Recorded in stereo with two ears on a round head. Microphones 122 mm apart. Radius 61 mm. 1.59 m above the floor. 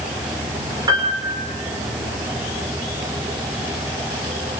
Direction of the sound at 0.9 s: 30° right (ahead or behind).